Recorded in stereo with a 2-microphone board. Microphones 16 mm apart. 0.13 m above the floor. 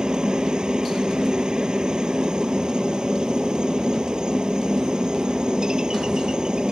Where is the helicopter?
60° right (ahead or behind).